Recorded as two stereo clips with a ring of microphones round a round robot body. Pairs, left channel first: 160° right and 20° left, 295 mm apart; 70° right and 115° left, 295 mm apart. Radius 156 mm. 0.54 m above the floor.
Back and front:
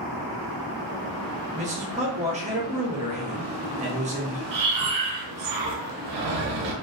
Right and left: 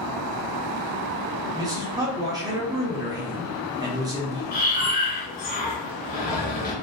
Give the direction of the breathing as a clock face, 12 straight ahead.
12 o'clock.